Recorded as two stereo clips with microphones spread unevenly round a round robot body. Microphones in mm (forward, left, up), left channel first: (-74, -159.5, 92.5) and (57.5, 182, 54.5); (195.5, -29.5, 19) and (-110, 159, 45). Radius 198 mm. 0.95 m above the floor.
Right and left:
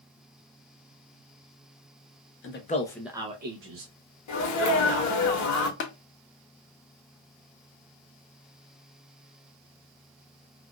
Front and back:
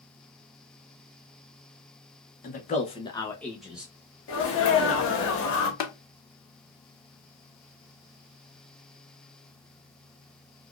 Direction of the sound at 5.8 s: 50° right.